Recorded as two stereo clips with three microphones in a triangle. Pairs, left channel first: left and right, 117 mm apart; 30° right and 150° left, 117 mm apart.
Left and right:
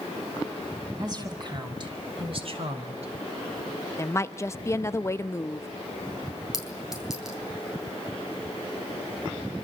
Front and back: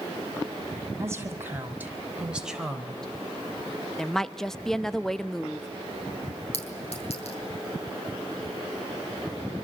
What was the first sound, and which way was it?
A woman speaking, 145° right.